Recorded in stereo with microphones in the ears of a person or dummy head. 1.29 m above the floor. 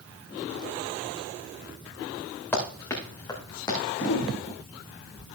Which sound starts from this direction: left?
A whoosh, at 4.0 s.